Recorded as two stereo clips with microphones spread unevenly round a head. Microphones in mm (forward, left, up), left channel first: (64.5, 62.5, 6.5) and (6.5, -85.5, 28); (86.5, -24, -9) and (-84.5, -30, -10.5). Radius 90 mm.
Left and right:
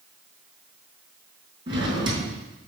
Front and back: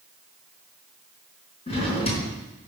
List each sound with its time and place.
1.7 s a drawer: 50° right, 4.5 m